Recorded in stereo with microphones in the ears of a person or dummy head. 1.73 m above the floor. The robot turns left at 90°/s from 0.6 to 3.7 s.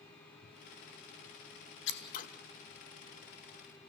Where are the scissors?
75° left (ahead or behind), 1.5 m; by 2.3 s 45° left (ahead or behind), 1.5 m.